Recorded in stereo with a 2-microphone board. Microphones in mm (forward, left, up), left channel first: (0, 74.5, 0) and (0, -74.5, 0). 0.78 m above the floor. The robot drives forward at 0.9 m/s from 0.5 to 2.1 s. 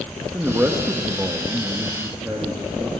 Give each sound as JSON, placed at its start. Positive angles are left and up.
{"t": 0.3, "sound": "a man speaking", "side_deg": -15, "distance_m": 0.9}